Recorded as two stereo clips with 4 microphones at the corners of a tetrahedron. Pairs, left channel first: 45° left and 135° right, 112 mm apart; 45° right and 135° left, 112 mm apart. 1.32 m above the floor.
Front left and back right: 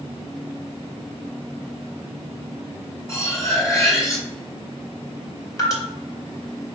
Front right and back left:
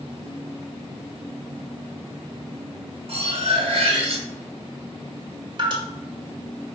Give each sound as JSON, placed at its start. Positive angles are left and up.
{"t": 3.1, "sound": "cutlery clinking", "azimuth_deg": 110, "distance_m": 1.4}
{"t": 5.6, "sound": "dripping", "azimuth_deg": 100, "distance_m": 1.4}